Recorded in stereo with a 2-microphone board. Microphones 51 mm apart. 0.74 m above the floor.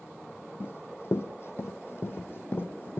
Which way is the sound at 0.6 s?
50° left (ahead or behind).